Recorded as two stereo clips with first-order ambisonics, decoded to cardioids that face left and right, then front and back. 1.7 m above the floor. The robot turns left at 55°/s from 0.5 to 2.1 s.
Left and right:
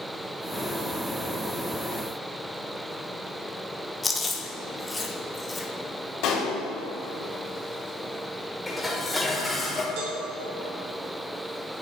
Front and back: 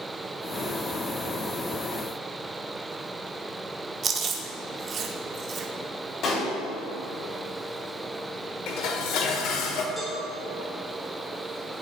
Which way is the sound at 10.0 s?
90° right.